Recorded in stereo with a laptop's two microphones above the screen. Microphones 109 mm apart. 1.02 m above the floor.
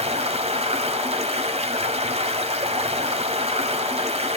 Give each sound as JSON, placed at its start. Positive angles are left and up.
{"t": 0.0, "sound": "running water", "side_deg": -75, "distance_m": 2.0}